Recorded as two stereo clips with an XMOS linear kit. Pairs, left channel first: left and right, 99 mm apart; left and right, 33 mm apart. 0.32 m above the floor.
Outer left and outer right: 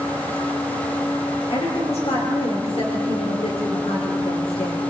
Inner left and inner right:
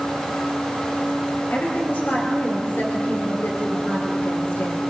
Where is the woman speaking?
75° left (ahead or behind), 5 m.